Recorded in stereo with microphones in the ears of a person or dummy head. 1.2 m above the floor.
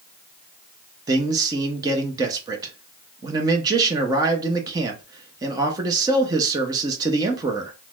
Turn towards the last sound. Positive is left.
turn(degrees=-25)  # may be behind; listen again after turning